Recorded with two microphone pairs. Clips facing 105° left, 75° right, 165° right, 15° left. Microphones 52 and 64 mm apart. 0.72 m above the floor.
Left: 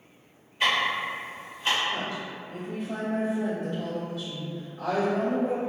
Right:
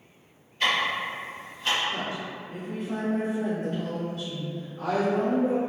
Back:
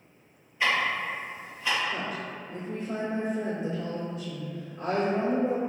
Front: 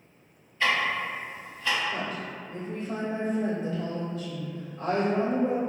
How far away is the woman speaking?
About 1.3 m.